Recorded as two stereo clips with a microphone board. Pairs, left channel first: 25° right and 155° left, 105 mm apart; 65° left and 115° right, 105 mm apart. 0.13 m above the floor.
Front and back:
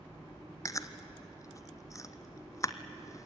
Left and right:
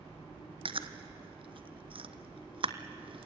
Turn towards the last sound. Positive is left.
turn(degrees=-80)